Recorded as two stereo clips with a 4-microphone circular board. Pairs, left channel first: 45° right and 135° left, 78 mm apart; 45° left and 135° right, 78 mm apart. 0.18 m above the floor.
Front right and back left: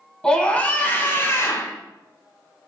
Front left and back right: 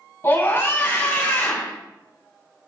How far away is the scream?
About 1.5 m.